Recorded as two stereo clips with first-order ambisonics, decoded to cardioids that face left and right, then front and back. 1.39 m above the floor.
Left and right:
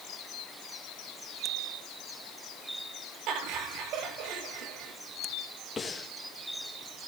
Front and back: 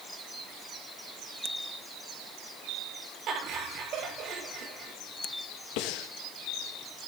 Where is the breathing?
15° left, 1.2 m.